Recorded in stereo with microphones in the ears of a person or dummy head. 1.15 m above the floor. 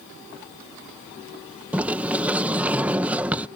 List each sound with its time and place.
1.7 s a sliding door: 10° right (ahead or behind)